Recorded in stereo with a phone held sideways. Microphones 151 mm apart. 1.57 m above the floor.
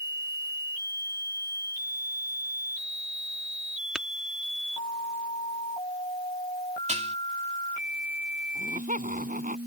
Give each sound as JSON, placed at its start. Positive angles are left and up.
{"t": 4.0, "sound": "tapping", "side_deg": -5}
{"t": 6.9, "sound": "dishes clattering", "side_deg": -45}
{"t": 8.6, "sound": "laughter", "side_deg": -60}